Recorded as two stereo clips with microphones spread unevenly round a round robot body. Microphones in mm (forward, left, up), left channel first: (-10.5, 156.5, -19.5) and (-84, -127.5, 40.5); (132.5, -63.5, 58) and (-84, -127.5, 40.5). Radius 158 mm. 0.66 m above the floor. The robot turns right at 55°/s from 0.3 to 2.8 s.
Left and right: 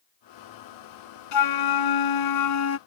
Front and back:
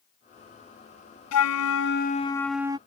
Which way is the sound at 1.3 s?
40° left.